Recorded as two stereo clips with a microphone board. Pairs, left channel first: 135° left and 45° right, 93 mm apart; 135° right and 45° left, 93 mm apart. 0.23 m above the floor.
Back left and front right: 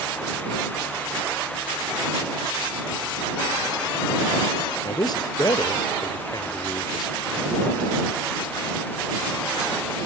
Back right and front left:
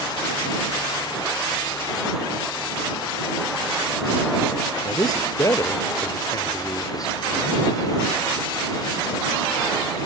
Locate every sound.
4.8 s a man speaking: 175° left